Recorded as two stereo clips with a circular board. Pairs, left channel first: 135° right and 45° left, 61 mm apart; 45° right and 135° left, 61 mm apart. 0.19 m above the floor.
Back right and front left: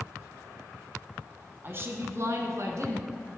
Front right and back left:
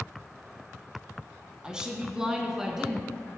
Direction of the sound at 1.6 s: 65° left.